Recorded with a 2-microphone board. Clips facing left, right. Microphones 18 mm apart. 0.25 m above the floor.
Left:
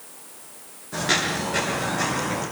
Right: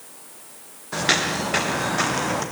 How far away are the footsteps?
About 5 m.